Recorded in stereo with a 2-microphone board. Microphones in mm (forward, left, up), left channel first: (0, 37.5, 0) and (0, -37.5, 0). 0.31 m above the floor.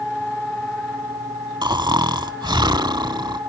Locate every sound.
1.6 s snoring: 80° right, 0.6 m